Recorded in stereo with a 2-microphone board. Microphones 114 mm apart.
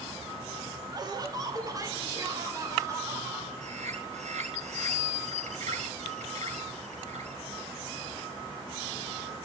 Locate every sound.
0.9 s laughter: 35° right (ahead or behind), 2.5 m; by 3.5 s 25° right (ahead or behind), 4.5 m
3.6 s a bird: 85° right, 7.5 m